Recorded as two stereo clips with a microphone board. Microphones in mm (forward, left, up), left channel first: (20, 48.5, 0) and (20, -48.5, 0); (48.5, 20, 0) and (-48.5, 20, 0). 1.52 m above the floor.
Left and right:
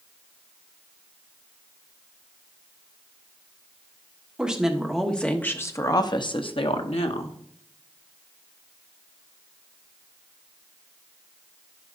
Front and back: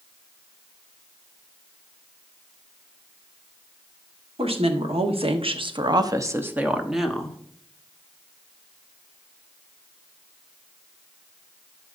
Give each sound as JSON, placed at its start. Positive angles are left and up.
{"t": 4.4, "sound": "a woman speaking", "azimuth_deg": -170, "distance_m": 1.5}